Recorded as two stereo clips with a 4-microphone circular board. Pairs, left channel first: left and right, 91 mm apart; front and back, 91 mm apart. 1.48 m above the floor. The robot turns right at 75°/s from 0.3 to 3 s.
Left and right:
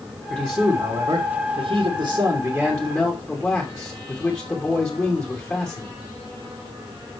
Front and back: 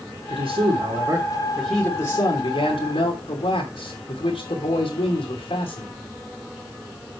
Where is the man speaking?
Straight behind, 3 m; by 5.9 s 20° left, 3 m.